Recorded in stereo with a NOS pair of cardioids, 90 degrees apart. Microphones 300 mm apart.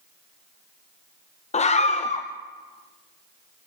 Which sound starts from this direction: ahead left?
A scream, at 1.5 s.